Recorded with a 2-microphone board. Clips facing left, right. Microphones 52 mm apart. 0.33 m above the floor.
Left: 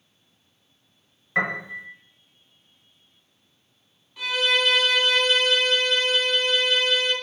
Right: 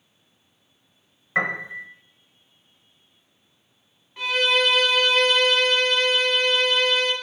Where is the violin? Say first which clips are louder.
Right 2 dB; 40° right (ahead or behind), 0.9 m.